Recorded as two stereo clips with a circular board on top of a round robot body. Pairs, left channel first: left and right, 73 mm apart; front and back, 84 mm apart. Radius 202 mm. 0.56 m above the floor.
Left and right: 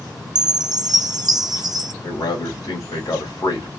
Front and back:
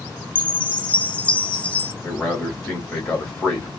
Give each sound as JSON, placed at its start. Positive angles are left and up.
{"t": 0.3, "sound": "a chime", "azimuth_deg": -75, "distance_m": 0.9}
{"t": 2.0, "sound": "a man speaking", "azimuth_deg": 65, "distance_m": 2.0}